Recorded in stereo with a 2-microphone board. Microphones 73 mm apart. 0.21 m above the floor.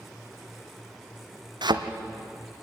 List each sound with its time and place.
1.6 s a thud: 70° right (ahead or behind), 1.7 m